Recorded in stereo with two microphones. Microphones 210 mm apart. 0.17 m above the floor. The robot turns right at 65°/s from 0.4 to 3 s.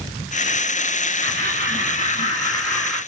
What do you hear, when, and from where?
1.2 s laughter: 60° left, 1.9 m; by 3.0 s straight behind, 1.9 m